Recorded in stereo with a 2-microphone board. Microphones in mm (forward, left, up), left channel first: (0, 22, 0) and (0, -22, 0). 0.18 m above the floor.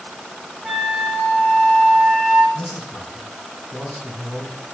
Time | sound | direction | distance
0.6 | a flute | 10° right (ahead or behind) | 1.7 m
2.5 | a man speaking | 5° left (ahead or behind) | 1.5 m